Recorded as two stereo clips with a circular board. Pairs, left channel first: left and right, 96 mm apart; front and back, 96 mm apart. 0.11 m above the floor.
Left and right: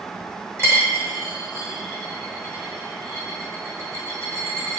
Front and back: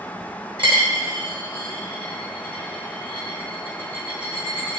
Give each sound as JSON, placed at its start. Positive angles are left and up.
{"t": 0.6, "sound": "a dropped coin", "azimuth_deg": -150, "distance_m": 0.9}